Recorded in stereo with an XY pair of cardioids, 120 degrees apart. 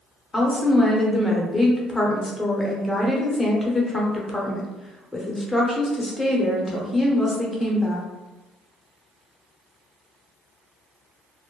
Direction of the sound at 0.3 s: 15° left.